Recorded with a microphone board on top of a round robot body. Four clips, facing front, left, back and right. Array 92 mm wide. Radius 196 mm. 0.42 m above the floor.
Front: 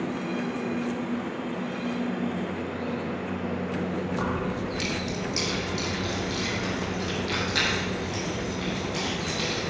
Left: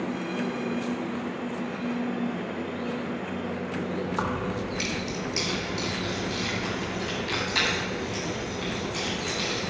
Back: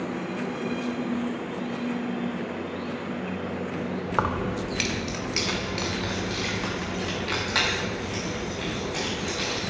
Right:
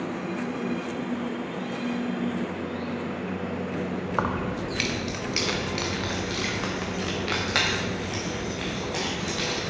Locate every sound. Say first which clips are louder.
4.1 s keys jangling: right 1 dB, back 2 dB; 160° right, 1.0 m; by 9.6 s 95° right, 4 m